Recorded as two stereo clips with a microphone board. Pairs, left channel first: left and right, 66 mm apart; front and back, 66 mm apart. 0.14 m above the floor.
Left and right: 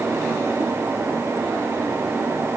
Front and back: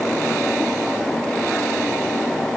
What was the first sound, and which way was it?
Only background noise.